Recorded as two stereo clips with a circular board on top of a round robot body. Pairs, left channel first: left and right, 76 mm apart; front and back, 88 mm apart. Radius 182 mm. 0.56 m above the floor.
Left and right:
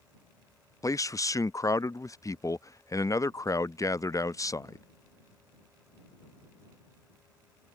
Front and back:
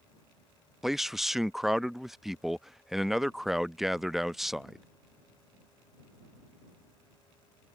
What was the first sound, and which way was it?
A man speaking, 95° left.